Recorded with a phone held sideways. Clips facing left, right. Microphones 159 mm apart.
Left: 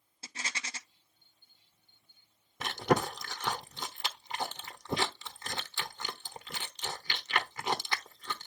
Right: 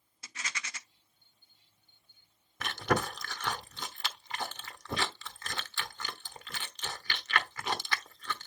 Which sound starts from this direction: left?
A rattle, at 0.2 s.